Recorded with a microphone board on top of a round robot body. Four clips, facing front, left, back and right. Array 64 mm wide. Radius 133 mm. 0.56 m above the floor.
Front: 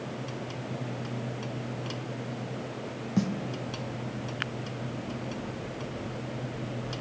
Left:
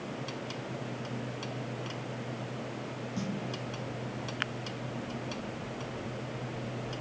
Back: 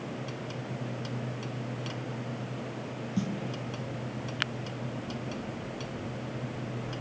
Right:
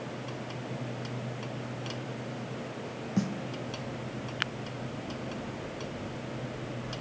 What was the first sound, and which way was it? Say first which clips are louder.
A snare drum: right 8 dB, front 4 dB; 35° right.